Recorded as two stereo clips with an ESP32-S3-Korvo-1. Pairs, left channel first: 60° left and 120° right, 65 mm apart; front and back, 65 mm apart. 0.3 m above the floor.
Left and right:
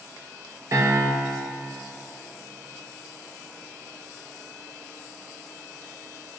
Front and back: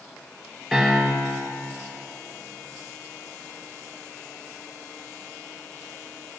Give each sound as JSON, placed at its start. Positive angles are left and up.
{"t": 0.7, "sound": "a piano", "azimuth_deg": -85, "distance_m": 3.0}